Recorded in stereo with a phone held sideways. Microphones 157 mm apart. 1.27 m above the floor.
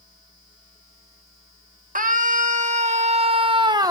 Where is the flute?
No flute in this recording.